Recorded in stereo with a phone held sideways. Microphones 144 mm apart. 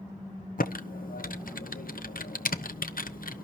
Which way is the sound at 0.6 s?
80° left.